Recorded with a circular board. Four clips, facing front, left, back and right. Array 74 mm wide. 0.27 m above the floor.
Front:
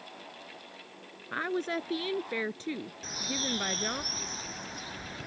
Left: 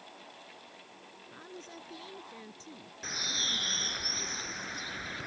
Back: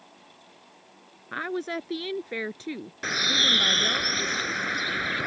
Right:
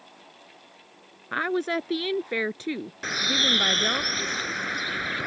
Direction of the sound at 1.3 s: 95° right.